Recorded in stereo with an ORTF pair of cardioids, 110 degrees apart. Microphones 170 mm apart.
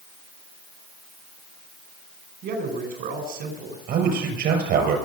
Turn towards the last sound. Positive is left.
turn(degrees=-70)